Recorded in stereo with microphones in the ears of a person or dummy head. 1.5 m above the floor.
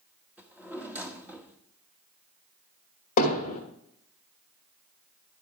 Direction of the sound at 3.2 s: 35° left (ahead or behind).